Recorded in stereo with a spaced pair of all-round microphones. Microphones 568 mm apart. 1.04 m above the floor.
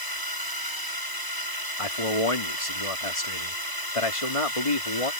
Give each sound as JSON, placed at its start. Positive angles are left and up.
{"t": 0.0, "sound": "a drone", "side_deg": 40}
{"t": 1.8, "sound": "a man speaking", "side_deg": 70}